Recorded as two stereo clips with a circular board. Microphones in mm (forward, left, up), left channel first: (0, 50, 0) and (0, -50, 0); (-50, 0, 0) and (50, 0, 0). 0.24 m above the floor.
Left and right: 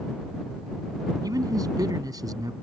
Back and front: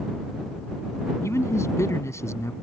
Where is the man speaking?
125° right.